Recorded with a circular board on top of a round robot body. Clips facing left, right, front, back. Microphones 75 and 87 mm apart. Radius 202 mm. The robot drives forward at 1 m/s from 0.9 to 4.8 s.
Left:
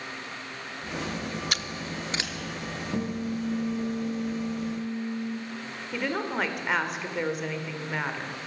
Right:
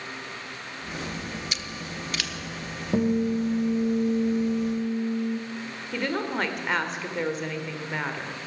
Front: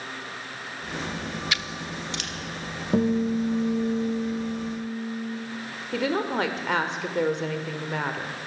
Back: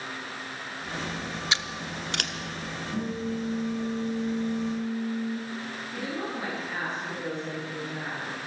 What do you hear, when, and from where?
1.5 s scissors: 115° left, 0.6 m; by 2.3 s 155° left, 1.1 m
2.9 s a guitar: 25° right, 1.5 m; by 5.4 s 125° right, 0.8 m
5.9 s a woman speaking: 5° left, 2 m